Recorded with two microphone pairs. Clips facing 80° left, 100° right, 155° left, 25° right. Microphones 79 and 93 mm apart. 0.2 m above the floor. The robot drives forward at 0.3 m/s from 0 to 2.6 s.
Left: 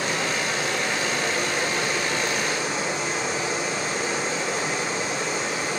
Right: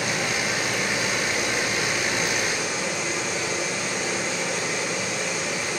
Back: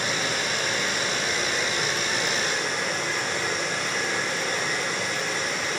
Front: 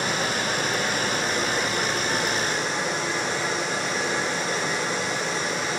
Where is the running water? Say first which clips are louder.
Even, front 2 dB; 25° left, 5 m; by 5.8 s 30° left, 4.5 m.